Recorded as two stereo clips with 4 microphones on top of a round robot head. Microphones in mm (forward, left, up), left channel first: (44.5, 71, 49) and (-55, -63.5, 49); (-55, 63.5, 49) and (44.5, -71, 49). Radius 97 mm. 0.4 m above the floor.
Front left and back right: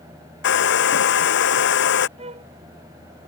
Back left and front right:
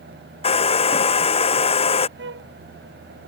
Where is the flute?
70° right.